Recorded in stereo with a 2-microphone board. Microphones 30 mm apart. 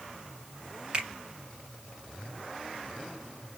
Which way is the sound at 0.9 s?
30° right (ahead or behind).